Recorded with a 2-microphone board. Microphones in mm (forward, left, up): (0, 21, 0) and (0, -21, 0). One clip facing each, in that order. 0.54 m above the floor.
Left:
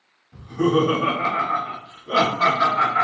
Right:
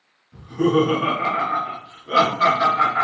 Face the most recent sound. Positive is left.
turn(degrees=0)  # may be behind; listen again after turning